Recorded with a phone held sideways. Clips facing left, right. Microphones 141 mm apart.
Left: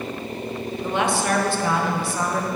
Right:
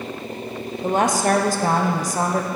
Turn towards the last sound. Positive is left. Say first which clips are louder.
# right 4 dB
turn(degrees=-40)  # may be behind; listen again after turning